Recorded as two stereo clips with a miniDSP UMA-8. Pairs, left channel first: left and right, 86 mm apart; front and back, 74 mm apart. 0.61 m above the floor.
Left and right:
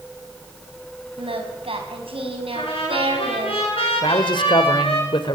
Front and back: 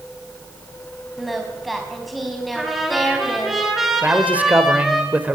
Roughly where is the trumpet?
Left.